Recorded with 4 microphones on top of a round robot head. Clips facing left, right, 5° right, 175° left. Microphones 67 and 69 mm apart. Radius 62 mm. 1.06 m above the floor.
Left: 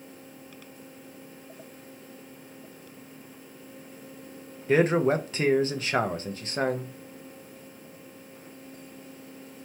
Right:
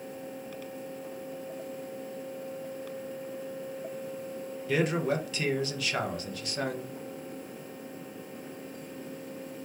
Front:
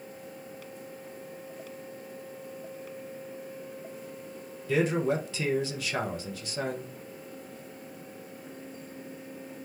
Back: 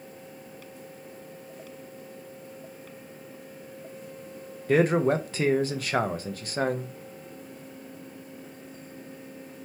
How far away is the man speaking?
About 0.6 m.